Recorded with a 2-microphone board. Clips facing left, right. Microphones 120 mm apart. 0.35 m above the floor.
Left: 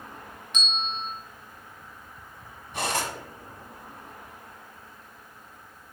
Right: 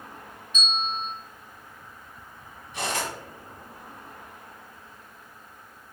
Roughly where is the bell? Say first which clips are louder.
Right 3 dB; left.